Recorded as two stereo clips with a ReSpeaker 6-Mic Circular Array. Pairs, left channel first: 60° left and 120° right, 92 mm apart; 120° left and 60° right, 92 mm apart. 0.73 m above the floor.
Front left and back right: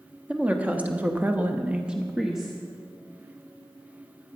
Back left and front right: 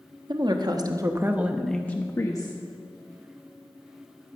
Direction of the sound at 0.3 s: 45° right.